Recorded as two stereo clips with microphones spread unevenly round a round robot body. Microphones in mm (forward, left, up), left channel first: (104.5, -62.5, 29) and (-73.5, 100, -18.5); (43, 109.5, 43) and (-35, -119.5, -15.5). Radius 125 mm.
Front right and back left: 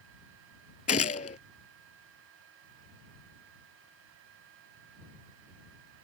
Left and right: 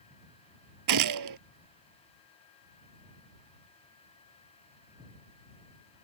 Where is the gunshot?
105° right.